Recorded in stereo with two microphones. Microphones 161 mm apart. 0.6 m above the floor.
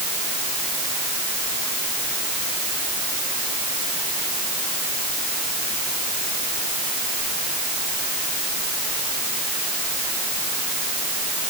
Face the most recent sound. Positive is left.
No sound to turn to.